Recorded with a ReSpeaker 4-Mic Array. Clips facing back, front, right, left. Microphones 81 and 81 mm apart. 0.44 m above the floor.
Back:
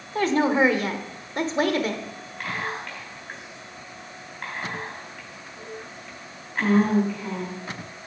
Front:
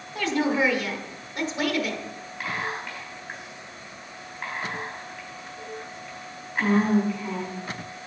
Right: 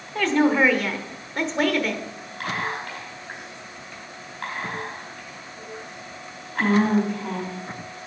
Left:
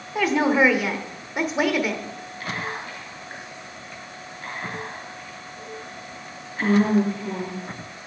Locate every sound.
0.1 s a woman speaking: 165° left, 1.1 m
2.4 s whispering: 85° right, 3.5 m